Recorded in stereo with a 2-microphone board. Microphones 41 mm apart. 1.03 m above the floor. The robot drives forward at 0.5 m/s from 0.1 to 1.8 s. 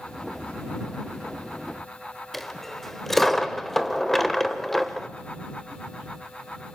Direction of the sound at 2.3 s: 5° left (ahead or behind).